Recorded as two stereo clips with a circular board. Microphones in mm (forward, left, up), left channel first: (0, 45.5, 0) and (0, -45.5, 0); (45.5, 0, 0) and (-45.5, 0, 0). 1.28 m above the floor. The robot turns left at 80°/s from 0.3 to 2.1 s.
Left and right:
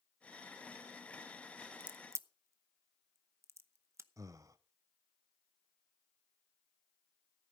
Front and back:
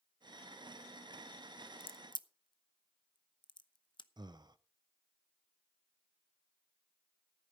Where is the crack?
10° right, 0.7 m; by 4.1 s 30° right, 0.7 m.